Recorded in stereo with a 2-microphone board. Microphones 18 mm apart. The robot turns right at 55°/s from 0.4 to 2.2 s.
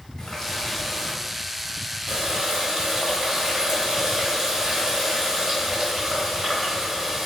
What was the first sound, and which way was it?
A running tap, 110° left.